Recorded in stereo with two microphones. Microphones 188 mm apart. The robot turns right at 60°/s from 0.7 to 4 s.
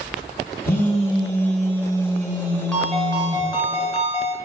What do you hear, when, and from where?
0.6 s a phone buzzing: 125° left, 1.6 m; by 3.5 s 65° right, 1.6 m
2.7 s a ringtone: 5° left, 0.8 m; by 4.3 s 85° left, 0.8 m